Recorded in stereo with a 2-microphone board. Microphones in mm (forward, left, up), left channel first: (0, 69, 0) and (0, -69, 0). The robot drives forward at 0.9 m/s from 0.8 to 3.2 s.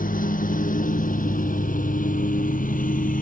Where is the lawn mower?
85° left.